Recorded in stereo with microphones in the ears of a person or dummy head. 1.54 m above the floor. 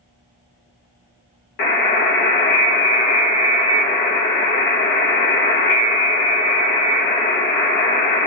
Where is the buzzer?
50° left (ahead or behind), 1.0 m.